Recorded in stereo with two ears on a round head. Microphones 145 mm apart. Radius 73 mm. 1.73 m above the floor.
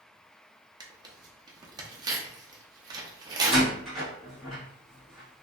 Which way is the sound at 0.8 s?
25° right (ahead or behind).